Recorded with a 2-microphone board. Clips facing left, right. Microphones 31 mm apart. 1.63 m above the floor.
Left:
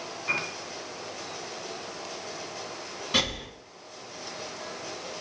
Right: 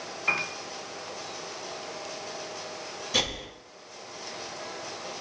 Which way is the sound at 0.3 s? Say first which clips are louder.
Right 2 dB; 40° right (ahead or behind).